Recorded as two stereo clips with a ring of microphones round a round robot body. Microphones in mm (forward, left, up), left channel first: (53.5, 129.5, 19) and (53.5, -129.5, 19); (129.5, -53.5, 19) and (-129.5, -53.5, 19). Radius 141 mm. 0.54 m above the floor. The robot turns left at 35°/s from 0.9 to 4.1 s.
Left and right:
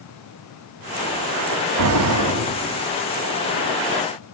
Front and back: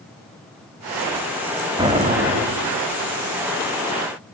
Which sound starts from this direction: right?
An explosion, at 1.8 s.